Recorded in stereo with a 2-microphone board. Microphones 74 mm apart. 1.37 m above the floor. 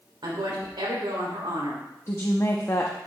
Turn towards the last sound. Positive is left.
turn(degrees=40)  # may be behind; listen again after turning